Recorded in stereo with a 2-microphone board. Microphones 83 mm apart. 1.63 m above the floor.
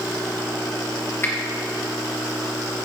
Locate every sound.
1.2 s a finger snap: 30° left (ahead or behind), 1.2 m